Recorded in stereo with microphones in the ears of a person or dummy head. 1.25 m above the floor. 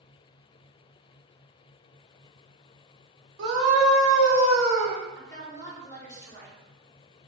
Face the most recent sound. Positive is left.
turn(degrees=15)  # may be behind; listen again after turning